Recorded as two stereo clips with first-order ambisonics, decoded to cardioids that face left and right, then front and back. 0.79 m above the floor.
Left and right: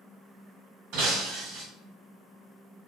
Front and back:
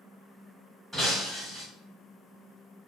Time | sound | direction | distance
0.9 | breaking glass | 85° right | 1.4 m